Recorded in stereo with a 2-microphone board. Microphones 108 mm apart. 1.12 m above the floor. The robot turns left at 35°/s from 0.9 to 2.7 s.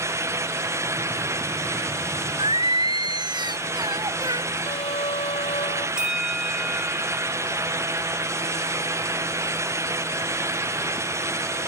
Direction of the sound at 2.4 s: 55° right (ahead or behind).